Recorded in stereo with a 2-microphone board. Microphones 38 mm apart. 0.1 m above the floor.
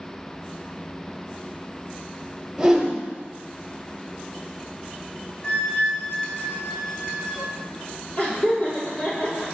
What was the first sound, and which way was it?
A whoosh, 15° right (ahead or behind).